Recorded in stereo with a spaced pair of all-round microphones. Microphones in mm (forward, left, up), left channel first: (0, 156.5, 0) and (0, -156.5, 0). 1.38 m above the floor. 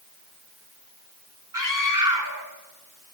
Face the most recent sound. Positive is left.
turn(degrees=-85)